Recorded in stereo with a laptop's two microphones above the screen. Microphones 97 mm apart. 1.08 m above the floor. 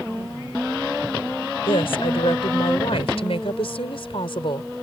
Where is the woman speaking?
75° left (ahead or behind); by 4.7 s 65° left (ahead or behind).